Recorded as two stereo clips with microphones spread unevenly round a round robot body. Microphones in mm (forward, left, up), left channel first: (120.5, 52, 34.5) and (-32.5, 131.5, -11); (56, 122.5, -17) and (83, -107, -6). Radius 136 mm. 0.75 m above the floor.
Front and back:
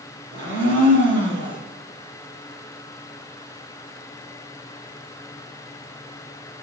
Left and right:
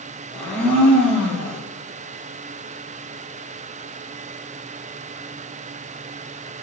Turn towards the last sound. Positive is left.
turn(degrees=-175)